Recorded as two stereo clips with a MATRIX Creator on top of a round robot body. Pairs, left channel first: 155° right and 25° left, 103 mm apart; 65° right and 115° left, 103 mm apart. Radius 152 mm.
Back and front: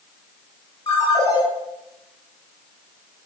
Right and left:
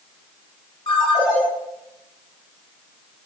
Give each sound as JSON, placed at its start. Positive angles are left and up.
{"t": 0.9, "sound": "a ringtone", "azimuth_deg": -110, "distance_m": 8.5}